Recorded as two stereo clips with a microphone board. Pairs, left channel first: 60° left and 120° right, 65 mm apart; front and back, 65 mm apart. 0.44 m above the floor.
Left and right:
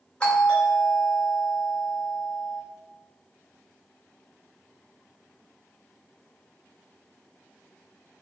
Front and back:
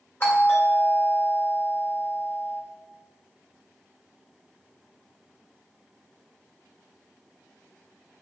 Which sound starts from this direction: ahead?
A doorbell, at 0.2 s.